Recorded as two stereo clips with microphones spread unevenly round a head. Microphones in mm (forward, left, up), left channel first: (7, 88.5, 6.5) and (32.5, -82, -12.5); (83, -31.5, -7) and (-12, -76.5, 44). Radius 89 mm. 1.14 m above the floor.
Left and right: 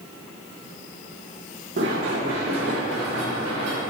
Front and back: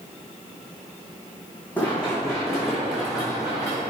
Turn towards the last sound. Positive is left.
turn(degrees=-80)